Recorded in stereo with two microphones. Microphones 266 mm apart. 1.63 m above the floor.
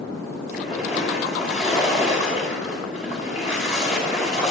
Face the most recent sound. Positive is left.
turn(degrees=0)  # may be behind; listen again after turning